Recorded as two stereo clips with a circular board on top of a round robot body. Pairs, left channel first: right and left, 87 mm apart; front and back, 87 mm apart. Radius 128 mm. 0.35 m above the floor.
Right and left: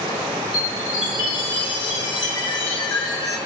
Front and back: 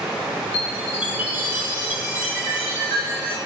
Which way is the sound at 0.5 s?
110° right.